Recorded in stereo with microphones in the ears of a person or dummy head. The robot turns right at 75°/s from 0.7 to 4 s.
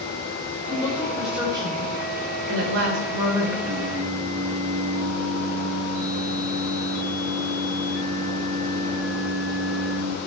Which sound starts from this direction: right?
Singing, at 3.7 s.